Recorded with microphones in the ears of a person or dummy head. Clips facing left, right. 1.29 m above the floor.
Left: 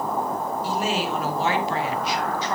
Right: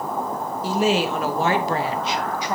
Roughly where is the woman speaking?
Right.